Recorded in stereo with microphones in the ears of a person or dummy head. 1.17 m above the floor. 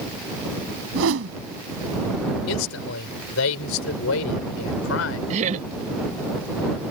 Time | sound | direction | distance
0.9 | a whoosh | 75° right (ahead or behind) | ?
2.5 | a man speaking | 75° left (ahead or behind) | ?
5.3 | laughter | 40° right (ahead or behind) | ?